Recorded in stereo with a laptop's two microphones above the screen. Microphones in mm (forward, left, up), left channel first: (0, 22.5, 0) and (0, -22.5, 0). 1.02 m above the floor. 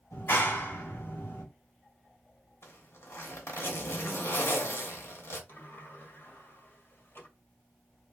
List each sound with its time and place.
0.1 s a clap: 65° left (ahead or behind), 3 m
2.6 s a zipper: 70° left (ahead or behind), 1.7 m
5.5 s a sliding door: 60° left (ahead or behind), 1.5 m